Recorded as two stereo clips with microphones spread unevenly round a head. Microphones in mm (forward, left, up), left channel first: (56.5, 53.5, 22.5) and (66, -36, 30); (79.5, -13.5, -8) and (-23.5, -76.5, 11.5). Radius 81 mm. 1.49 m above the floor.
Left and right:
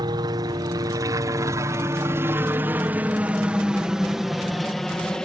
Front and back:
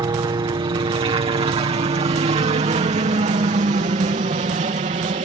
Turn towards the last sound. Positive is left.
turn(degrees=180)